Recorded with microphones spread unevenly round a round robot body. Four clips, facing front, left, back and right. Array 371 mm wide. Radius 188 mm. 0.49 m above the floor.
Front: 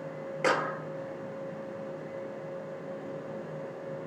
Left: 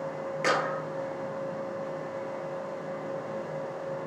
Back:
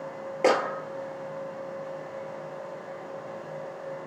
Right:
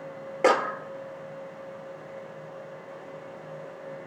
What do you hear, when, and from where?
0.4 s a clap: 125° right, 1.2 m